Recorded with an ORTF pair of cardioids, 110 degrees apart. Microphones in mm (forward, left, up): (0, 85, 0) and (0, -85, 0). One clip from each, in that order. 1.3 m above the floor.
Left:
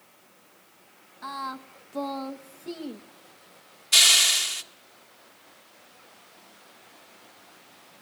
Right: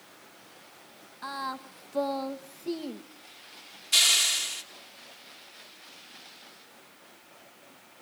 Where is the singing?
10° right, 1.2 m.